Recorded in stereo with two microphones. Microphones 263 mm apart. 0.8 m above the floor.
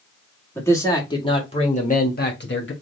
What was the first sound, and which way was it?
A man speaking, 10° left (ahead or behind).